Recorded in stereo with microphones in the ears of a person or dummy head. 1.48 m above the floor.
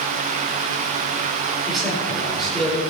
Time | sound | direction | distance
1.7 | a man speaking | 5° left (ahead or behind) | 6 m